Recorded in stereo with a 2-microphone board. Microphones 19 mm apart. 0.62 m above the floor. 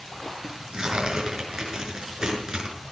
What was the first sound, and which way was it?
Tearing paper, 35° right (ahead or behind).